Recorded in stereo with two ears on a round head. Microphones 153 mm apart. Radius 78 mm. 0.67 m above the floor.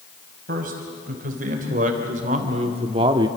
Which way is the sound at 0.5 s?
50° right (ahead or behind).